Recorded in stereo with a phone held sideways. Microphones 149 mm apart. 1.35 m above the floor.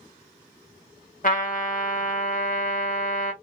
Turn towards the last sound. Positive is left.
turn(degrees=60)  # may be behind; listen again after turning